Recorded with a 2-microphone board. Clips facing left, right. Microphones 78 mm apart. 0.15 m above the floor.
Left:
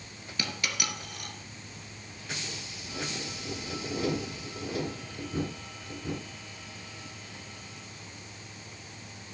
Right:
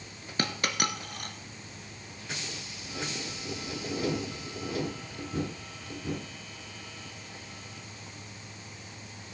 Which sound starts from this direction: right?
A dropped coin, at 0.4 s.